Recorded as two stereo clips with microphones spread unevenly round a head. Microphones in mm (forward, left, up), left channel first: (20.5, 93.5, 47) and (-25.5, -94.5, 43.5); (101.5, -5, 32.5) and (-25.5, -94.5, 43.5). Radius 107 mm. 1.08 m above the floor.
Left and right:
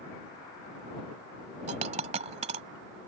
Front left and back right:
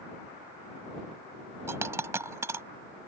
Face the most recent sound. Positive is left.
turn(degrees=-105)